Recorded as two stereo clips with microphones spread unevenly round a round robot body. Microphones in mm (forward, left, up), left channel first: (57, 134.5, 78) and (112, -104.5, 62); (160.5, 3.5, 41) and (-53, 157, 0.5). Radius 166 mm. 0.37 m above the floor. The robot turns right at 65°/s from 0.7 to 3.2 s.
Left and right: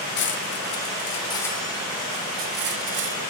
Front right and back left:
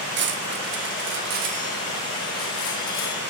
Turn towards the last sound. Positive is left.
turn(degrees=-65)